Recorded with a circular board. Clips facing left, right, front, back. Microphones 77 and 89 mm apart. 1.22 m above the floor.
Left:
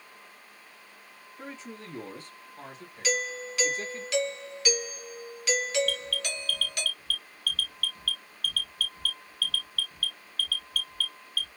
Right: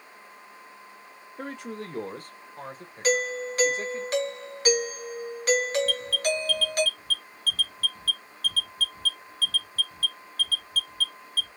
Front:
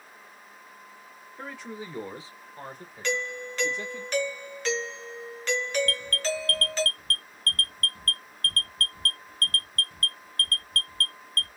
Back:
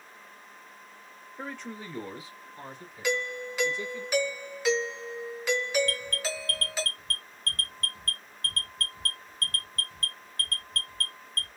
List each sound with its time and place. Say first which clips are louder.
1.4 s a man speaking: right 6 dB, even; 95° right, 1.2 m; by 4.0 s 25° right, 2.5 m
3.0 s a doorbell: right 6 dB, even; 105° right, 0.9 m
5.9 s an alarm: right 6 dB, front 3 dB; 35° right, 1.0 m